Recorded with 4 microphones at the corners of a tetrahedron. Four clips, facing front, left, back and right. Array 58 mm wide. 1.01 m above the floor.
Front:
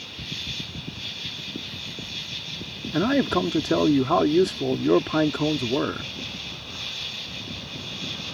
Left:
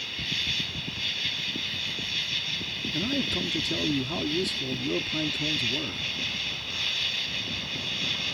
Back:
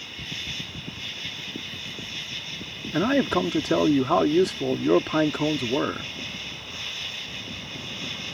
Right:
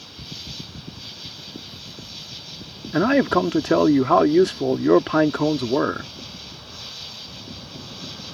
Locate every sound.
0.0 s an insect: 110° left
2.9 s a man speaking: 90° right